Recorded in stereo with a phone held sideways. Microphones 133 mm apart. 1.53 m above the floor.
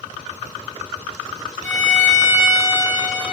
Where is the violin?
70° right (ahead or behind), 1.6 m.